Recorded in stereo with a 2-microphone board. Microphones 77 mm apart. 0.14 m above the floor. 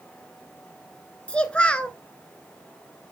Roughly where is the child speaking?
Centre.